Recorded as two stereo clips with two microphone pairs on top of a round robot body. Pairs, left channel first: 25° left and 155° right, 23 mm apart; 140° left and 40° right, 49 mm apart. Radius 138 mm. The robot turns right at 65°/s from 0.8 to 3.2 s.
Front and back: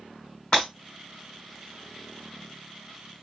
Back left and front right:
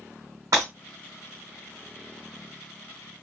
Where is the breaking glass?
50° right, 1.0 m.